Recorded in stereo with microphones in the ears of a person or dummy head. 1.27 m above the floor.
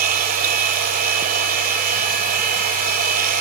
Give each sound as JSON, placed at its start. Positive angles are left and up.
{"t": 0.0, "sound": "a machine running", "side_deg": -50}